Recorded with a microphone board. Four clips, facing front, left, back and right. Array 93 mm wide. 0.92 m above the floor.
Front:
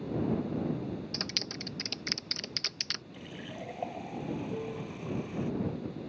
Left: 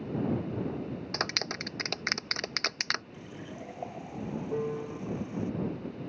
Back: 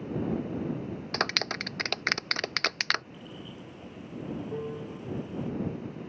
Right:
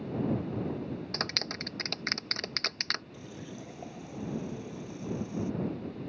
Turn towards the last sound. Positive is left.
turn(degrees=100)